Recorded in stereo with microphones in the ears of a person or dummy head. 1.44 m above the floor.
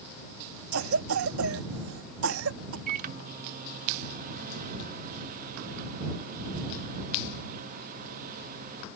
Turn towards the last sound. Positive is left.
turn(degrees=-50)  # may be behind; listen again after turning